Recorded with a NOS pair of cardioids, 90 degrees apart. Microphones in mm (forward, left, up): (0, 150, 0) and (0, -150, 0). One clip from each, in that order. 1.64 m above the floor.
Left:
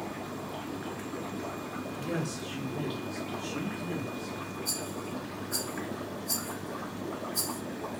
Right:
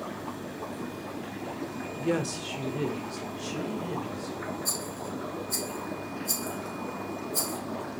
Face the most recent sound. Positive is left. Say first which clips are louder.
# right 2 dB
turn(degrees=-70)